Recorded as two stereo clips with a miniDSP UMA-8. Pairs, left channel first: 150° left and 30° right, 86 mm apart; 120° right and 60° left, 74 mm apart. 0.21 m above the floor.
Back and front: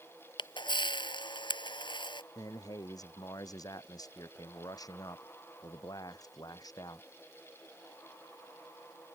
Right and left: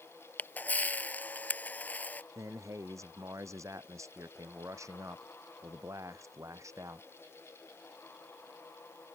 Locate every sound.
0.4 s a camera shutter: 175° left
2.4 s a man speaking: 105° left